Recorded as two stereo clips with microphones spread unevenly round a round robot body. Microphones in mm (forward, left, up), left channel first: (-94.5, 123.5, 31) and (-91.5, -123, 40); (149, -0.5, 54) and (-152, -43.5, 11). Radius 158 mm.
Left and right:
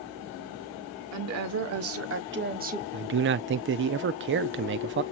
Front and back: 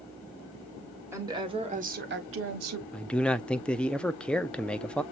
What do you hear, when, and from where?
1.1 s a woman speaking: 95° right, 1.9 m; by 2.8 s 150° right, 1.4 m
2.9 s a man speaking: 85° right, 0.6 m